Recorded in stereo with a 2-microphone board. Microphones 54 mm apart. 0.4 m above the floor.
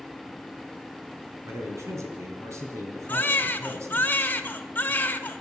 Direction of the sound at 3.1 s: 35° left (ahead or behind).